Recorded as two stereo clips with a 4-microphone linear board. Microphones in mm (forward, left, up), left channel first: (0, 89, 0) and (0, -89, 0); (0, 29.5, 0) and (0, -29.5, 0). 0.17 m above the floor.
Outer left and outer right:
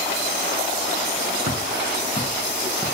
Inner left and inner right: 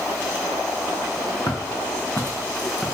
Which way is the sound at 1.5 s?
70° left (ahead or behind).